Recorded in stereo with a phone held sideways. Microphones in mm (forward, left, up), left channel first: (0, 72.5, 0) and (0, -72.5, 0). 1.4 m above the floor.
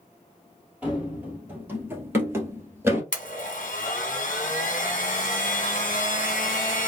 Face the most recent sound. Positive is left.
turn(degrees=60)  # may be behind; listen again after turning